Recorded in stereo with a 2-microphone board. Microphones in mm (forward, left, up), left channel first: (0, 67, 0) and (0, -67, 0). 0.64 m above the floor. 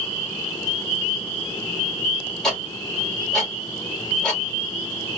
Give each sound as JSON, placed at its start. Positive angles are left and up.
{"t": 2.4, "sound": "ticking", "side_deg": 5, "distance_m": 1.4}